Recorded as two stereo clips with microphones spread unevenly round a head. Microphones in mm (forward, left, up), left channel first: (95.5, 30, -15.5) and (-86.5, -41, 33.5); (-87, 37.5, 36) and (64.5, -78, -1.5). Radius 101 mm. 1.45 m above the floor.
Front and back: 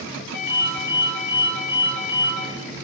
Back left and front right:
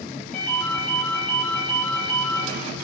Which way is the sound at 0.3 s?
65° left.